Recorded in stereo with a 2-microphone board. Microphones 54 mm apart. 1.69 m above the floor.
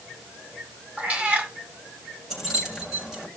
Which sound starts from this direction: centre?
Keys jangling, at 2.3 s.